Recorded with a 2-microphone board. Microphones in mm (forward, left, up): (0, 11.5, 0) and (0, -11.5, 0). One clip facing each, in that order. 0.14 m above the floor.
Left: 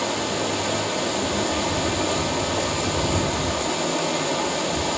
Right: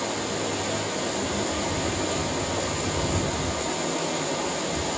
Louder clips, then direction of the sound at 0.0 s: Left 4 dB; 25° left (ahead or behind).